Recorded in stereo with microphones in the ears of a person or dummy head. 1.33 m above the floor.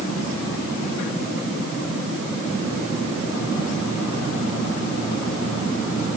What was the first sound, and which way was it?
Only background noise.